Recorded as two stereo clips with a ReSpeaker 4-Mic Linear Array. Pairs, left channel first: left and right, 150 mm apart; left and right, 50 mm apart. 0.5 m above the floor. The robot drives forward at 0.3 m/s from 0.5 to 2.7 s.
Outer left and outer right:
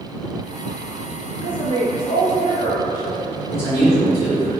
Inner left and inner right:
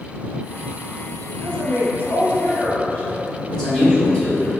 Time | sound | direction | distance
1.4 | a woman speaking | 35° left (ahead or behind) | 1.2 m
3.5 | a man speaking | 20° left (ahead or behind) | 1.8 m